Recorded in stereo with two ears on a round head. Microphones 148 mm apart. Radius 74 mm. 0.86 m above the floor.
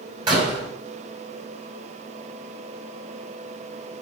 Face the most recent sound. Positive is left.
turn(degrees=-30)  # may be behind; listen again after turning